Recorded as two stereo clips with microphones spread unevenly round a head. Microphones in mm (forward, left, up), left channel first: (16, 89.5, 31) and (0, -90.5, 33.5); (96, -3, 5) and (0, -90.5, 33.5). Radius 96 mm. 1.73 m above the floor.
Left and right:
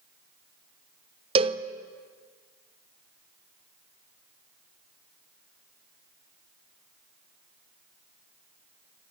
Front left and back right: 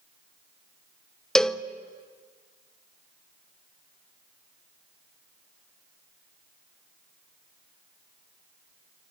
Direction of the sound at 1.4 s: 60° right.